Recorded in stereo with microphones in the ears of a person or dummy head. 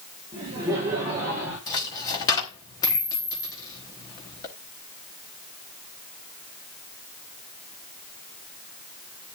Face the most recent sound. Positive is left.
turn(degrees=20)  # may be behind; listen again after turning